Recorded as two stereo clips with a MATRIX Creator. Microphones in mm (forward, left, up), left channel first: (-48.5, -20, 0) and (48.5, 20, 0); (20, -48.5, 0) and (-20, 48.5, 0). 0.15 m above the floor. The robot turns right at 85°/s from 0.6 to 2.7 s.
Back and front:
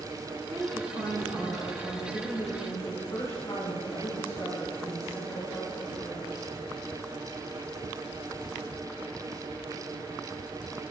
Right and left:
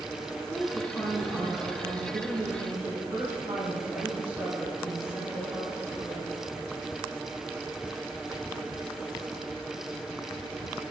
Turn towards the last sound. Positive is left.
turn(degrees=165)